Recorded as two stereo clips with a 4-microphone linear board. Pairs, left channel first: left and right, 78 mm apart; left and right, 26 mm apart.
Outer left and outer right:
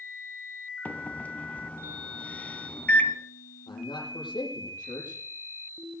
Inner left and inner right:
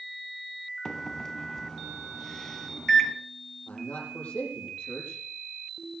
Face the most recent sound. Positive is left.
turn(degrees=75)  # may be behind; listen again after turning